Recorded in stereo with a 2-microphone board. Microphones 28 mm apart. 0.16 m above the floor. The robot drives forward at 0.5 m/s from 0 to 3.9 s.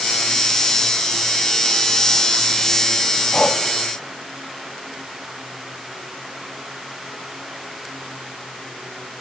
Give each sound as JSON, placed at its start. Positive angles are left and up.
{"t": 3.3, "sound": "breathing", "side_deg": 35, "distance_m": 1.3}